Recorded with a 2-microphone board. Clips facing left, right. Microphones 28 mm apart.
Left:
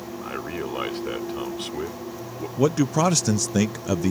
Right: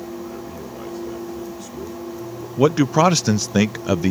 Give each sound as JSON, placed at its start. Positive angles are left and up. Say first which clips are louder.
{"t": 0.2, "sound": "a man speaking", "louder": "left 2 dB", "side_deg": 70}
{"t": 2.6, "sound": "a man speaking", "louder": "right 5 dB", "side_deg": -30}